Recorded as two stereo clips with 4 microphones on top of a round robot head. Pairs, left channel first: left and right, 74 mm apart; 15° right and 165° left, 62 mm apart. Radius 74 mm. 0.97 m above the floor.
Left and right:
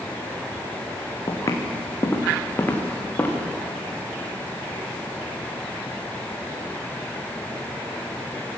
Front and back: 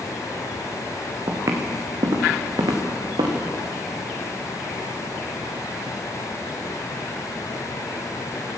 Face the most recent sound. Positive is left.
turn(degrees=155)